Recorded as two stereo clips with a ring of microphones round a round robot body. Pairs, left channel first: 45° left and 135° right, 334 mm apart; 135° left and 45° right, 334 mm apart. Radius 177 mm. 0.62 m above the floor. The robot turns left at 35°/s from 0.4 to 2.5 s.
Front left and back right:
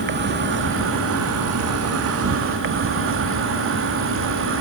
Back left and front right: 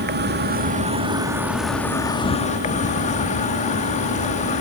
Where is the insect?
90° right; by 4.6 s 165° right.